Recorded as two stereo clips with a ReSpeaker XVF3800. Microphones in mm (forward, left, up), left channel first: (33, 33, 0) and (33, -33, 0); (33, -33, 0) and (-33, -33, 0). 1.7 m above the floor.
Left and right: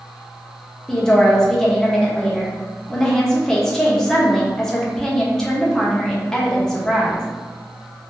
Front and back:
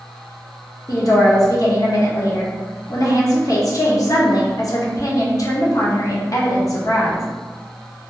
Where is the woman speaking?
10° left, 0.7 m.